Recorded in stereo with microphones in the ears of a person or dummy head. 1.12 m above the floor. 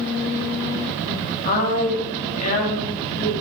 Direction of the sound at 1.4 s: 35° left (ahead or behind).